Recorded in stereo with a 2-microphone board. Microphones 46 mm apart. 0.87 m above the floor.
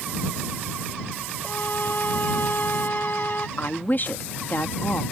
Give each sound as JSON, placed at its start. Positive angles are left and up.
{"t": 1.4, "sound": "a violin", "side_deg": 45}
{"t": 3.6, "sound": "a woman speaking", "side_deg": 45}